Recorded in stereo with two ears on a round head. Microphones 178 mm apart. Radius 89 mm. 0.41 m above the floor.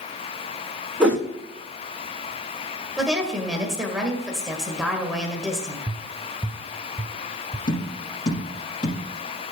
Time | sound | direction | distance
1.0 | a whoosh | 5° right (ahead or behind) | 4.5 m
3.0 | a woman speaking | 5° right (ahead or behind) | 1.6 m
5.9 | tapping | 20° right (ahead or behind) | 0.7 m
7.7 | tapping | 25° left (ahead or behind) | 5 m